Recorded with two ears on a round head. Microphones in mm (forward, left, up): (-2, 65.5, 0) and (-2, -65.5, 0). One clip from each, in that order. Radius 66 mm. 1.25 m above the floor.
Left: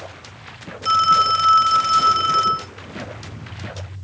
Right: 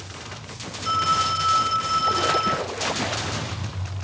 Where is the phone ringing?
25° left (ahead or behind), 0.5 m.